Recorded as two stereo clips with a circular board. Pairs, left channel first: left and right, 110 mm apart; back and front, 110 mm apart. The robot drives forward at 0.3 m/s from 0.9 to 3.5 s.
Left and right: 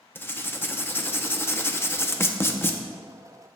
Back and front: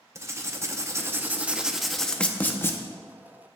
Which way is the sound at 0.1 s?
40° left.